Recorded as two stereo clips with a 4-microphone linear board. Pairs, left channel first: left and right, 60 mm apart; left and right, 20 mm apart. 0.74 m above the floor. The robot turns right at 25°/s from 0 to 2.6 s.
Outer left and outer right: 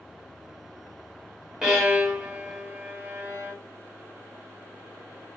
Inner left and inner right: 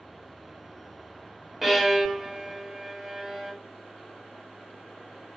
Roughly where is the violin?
Centre.